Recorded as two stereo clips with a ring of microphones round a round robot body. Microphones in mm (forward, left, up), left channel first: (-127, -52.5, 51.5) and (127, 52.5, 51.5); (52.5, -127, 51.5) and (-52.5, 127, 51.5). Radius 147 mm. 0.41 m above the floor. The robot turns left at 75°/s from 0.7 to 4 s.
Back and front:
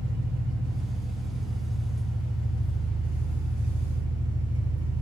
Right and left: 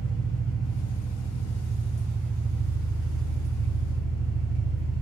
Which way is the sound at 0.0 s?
55° right.